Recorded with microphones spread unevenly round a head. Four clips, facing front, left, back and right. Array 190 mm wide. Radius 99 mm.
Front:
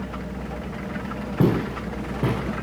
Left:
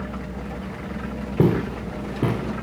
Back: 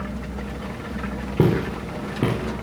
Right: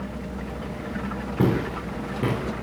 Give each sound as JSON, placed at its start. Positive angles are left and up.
{"t": 1.4, "sound": "footsteps", "azimuth_deg": 145, "distance_m": 6.0}